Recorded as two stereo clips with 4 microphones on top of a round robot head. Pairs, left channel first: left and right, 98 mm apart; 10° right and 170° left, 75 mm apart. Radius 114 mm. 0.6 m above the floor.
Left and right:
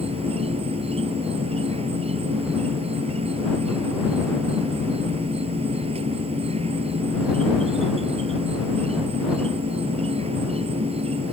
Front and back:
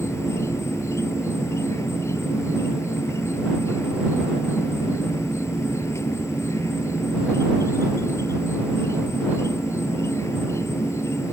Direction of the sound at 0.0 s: 65° right.